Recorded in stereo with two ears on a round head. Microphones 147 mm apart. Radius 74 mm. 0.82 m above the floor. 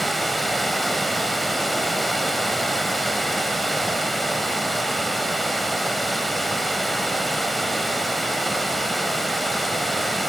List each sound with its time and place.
0.0 s running water: centre (ahead or behind), 0.8 m